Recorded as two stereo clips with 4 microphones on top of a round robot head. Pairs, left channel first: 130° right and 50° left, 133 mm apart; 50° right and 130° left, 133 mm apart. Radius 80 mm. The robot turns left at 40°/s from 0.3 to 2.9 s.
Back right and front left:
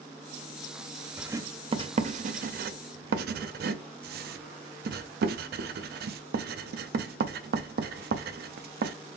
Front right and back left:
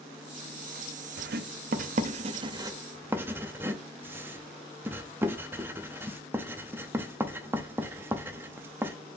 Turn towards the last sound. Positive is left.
turn(degrees=55)